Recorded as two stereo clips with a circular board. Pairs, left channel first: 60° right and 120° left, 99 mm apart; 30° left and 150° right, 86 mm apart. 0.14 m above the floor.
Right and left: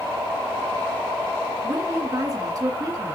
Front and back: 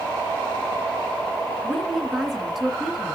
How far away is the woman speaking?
About 1.9 m.